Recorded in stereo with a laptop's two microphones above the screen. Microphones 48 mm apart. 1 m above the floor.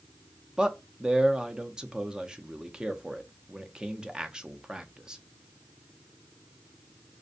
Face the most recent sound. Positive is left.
turn(degrees=-15)  # may be behind; listen again after turning